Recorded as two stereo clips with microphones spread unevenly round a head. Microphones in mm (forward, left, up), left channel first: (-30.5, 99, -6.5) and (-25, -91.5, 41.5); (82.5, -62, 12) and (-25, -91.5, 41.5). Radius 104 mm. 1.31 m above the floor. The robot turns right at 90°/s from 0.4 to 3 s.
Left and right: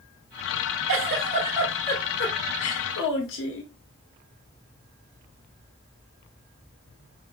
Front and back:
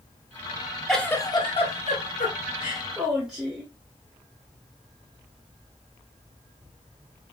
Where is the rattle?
I don't hear a rattle.